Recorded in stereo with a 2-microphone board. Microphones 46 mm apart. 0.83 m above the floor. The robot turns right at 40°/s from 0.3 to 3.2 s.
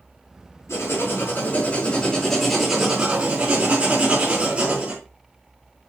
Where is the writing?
105° left, 4.5 m; by 5.0 s 150° right, 4.5 m.